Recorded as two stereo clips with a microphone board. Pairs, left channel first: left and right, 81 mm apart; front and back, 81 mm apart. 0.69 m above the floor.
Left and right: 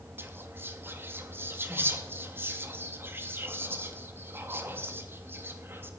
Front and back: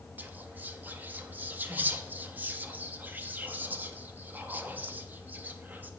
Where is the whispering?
130° right, 0.6 m.